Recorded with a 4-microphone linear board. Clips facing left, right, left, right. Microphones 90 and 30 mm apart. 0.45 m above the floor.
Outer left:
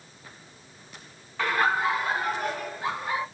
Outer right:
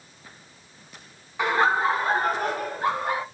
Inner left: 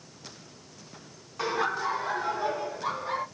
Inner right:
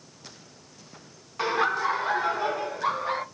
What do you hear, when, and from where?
1.4 s laughter: 20° right (ahead or behind), 0.8 m; by 3.2 s 60° right (ahead or behind), 1.7 m